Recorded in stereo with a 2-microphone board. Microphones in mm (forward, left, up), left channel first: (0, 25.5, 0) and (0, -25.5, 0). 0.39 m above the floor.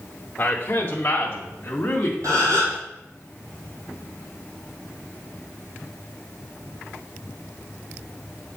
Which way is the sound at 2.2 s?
80° right.